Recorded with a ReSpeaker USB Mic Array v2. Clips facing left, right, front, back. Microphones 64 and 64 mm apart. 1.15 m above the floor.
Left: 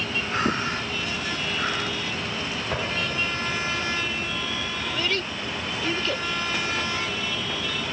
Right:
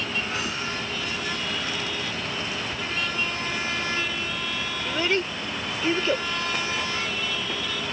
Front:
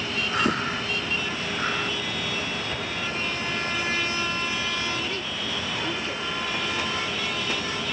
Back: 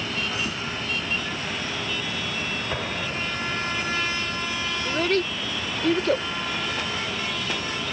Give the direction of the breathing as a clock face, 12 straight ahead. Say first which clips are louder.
Left 5 dB, front 5 dB; 11 o'clock.